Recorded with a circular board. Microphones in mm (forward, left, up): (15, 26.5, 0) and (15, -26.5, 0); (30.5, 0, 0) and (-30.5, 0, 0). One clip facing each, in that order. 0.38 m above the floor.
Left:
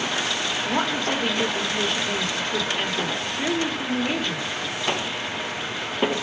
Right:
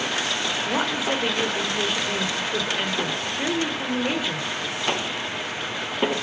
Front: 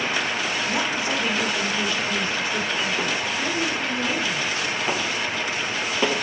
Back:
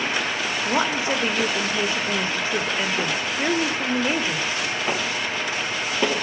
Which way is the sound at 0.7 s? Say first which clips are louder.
Left 1 dB, back 6 dB; 165° right.